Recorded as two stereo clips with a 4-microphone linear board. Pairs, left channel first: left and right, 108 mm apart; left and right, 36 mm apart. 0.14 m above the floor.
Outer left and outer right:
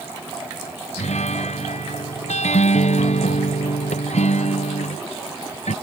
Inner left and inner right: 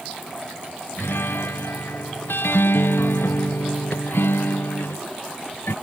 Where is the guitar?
85° left.